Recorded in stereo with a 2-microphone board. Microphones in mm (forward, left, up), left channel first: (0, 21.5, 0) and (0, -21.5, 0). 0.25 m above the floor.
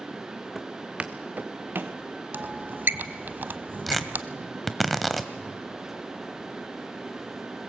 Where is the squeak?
50° right (ahead or behind), 0.8 m.